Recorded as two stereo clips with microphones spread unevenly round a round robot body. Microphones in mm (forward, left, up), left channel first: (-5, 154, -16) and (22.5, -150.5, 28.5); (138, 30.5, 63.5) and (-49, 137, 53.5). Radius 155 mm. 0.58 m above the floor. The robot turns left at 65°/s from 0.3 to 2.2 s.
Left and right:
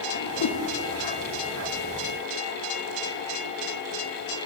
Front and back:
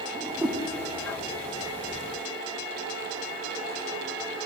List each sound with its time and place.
0.1 s a whoosh: 75° left, 0.5 m; by 0.6 s 55° left, 0.5 m